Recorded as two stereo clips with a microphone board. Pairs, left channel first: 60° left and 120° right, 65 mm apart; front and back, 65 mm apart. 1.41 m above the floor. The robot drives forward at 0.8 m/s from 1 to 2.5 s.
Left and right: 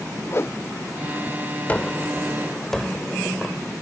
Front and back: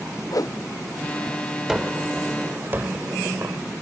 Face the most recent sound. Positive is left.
turn(degrees=140)